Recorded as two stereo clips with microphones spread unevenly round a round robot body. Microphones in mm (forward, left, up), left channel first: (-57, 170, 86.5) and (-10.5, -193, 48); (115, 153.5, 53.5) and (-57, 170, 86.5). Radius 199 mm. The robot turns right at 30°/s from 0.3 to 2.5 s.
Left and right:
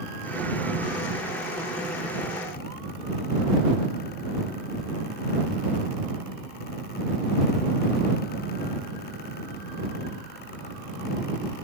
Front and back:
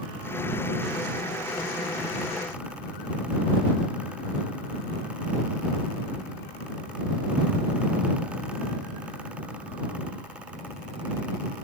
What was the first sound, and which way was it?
Only background noise.